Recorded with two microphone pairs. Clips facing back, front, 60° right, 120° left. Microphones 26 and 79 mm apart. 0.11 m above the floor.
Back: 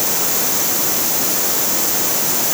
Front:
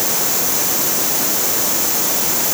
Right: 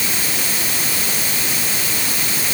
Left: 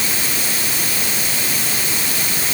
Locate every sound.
Only background noise.